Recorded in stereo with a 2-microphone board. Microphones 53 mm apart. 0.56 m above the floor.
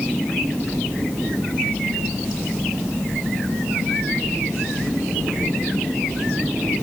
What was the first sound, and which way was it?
Only background noise.